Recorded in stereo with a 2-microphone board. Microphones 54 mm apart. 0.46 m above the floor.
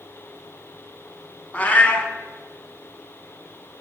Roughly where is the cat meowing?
Left.